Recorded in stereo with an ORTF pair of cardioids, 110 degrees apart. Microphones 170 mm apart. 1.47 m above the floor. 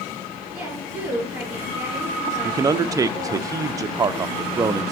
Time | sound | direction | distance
0.5 | a woman speaking | 10° right | 5 m
2.4 | a man speaking | 20° right | 0.5 m